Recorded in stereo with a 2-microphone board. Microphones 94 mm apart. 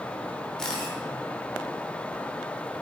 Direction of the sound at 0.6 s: 10° left (ahead or behind).